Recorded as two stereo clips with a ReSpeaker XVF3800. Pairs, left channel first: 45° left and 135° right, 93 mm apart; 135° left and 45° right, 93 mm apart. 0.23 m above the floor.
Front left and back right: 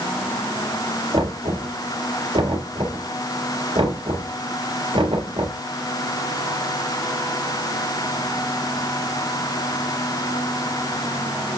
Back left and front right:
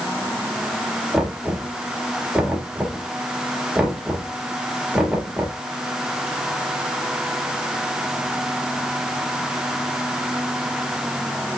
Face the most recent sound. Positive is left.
turn(degrees=-125)